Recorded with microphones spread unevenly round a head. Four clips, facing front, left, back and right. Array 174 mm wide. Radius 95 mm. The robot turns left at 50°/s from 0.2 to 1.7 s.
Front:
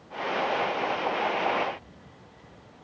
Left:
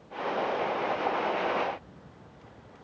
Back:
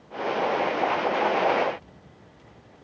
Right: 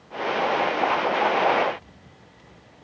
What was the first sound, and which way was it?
Only background noise.